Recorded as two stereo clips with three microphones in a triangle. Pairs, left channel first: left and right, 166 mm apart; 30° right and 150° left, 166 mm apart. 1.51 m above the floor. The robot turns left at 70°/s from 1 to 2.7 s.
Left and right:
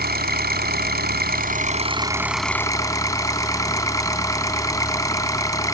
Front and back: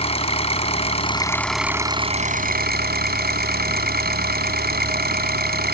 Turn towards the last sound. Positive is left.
turn(degrees=160)